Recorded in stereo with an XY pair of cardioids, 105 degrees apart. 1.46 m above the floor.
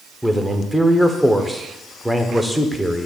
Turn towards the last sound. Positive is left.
turn(degrees=0)